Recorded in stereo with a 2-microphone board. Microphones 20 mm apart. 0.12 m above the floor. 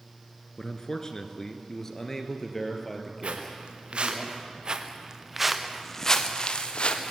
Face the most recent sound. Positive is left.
turn(degrees=55)  # may be behind; listen again after turning